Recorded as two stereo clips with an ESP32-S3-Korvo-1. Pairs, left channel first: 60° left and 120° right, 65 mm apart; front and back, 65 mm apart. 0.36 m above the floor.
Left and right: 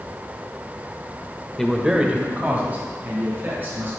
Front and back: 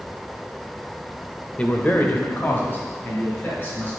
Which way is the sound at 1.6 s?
5° right.